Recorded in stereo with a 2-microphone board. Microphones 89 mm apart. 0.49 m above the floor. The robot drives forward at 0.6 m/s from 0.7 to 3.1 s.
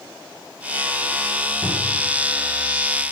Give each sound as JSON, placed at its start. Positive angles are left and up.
{"t": 1.6, "sound": "a cupboard door", "side_deg": -10, "distance_m": 2.5}